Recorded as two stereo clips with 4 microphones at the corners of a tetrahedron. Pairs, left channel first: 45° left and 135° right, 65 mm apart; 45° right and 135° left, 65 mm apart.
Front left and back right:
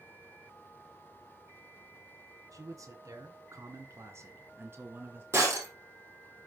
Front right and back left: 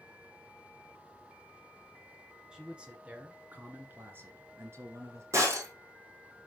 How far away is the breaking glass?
About 4 m.